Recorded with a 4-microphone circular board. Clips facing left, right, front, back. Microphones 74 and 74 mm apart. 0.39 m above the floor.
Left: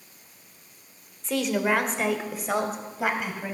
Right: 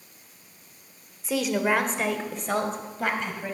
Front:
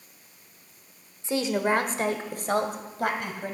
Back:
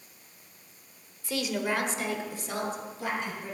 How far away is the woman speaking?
About 0.9 m.